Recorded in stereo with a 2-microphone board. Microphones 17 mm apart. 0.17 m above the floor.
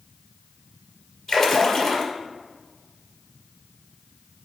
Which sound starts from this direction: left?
A splash, at 1.3 s.